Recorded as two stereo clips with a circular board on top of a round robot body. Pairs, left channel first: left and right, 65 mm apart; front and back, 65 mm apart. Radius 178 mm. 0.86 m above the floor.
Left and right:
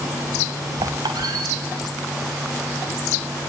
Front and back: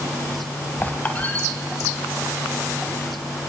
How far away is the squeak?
About 1.2 m.